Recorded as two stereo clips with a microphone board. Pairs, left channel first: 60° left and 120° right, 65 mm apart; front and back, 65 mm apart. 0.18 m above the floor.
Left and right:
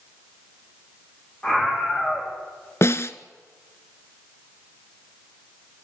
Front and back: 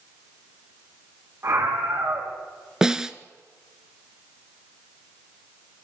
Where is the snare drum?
100° left, 0.9 m.